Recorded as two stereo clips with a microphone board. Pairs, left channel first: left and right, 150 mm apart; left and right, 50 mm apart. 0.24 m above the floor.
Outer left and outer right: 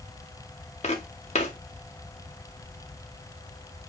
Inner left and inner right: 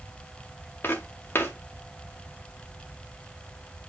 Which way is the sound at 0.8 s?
45° left (ahead or behind).